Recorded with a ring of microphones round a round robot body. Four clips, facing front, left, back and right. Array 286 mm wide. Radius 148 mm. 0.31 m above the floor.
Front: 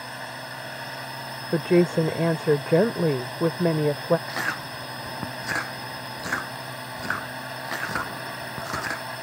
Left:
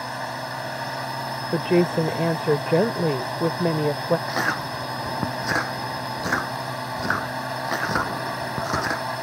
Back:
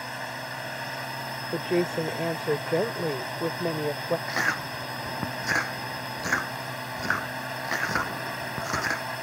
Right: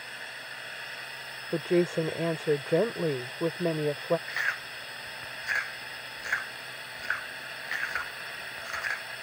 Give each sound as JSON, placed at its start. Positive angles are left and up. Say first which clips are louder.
{"t": 0.0, "sound": "a drone", "louder": "left 14 dB, back 1 dB", "azimuth_deg": 95}
{"t": 1.5, "sound": "a woman speaking", "louder": "left 5 dB, front 6 dB", "azimuth_deg": 40}
{"t": 4.3, "sound": "chewing", "louder": "left 9 dB, back 1 dB", "azimuth_deg": 95}